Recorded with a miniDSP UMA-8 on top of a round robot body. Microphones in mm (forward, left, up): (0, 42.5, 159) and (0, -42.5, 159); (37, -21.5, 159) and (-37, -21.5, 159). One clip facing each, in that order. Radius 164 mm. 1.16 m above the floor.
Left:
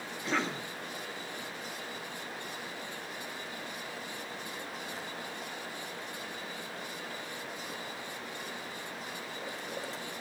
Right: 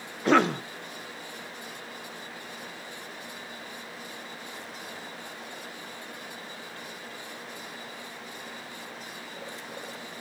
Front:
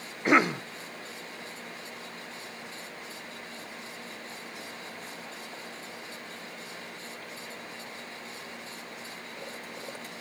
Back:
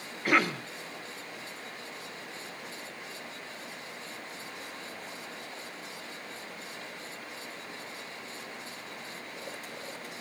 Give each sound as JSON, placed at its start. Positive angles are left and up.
{"t": 0.2, "sound": "a cough", "azimuth_deg": -70, "distance_m": 0.9}